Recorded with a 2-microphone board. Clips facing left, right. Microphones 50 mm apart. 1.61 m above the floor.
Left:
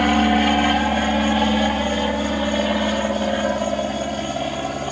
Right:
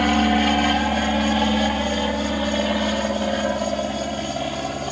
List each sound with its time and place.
0.0 s an aircraft: 5° left (ahead or behind)